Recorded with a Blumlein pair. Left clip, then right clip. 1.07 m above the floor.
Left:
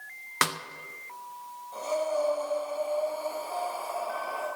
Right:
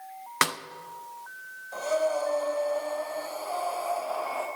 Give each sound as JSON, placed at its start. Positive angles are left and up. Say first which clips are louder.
{"t": 0.4, "sound": "a snare drum", "louder": "right 1 dB", "azimuth_deg": -5, "distance_m": 0.7}
{"t": 1.7, "sound": "breathing", "louder": "right 2 dB", "azimuth_deg": -25, "distance_m": 3.5}